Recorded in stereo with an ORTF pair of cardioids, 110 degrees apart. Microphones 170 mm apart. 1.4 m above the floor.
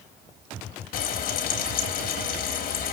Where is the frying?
55° left, 3 m.